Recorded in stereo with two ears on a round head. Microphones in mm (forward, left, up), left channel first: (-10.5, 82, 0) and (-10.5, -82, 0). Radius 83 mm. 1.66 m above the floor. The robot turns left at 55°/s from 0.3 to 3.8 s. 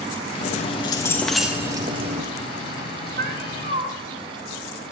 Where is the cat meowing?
105° right, 2 m; by 3.9 s 140° right, 2 m.